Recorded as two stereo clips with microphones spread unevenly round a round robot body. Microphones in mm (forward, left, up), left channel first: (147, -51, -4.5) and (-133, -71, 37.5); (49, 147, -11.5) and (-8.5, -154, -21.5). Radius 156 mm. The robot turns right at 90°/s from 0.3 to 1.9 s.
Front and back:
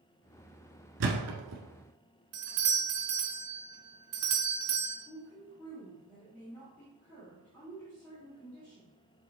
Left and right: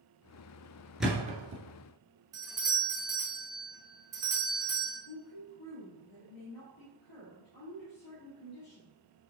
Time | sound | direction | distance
1.0 | a thud | 165° left | 1.2 m
2.3 | a doorbell | 175° right | 1.1 m
5.1 | a woman speaking | 85° left | 1.9 m